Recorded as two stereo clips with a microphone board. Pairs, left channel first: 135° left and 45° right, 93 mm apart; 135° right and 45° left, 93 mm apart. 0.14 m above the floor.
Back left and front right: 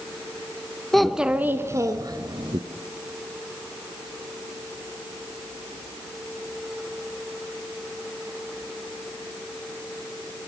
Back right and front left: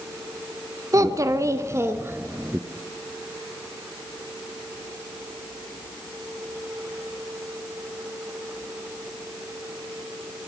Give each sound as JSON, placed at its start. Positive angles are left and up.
{"t": 0.9, "sound": "a child speaking", "azimuth_deg": 50, "distance_m": 0.9}